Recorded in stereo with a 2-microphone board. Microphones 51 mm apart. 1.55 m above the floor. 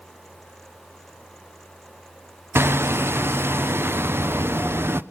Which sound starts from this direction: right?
Hammering, at 2.5 s.